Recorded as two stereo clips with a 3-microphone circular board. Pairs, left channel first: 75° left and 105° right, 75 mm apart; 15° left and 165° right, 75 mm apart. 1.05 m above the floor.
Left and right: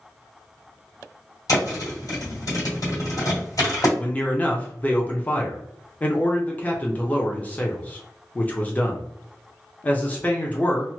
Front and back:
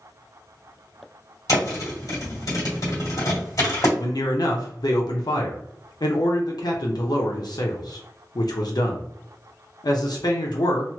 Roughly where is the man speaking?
Ahead.